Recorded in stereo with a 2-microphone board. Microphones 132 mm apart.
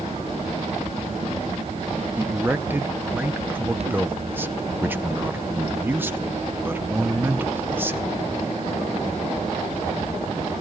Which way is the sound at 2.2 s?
15° right (ahead or behind).